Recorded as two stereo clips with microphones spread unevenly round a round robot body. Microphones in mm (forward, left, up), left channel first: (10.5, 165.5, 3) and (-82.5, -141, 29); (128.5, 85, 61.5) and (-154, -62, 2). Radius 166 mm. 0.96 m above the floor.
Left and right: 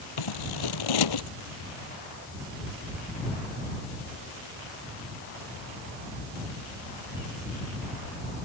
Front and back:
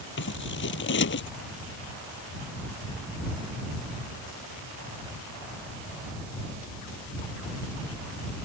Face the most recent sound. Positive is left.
turn(degrees=85)